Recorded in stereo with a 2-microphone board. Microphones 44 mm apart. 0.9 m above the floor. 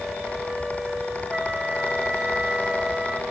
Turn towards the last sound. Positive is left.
turn(degrees=-15)  # may be behind; listen again after turning